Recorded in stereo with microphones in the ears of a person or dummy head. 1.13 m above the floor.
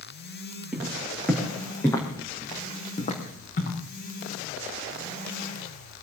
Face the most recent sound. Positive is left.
turn(degrees=55)  # may be behind; listen again after turning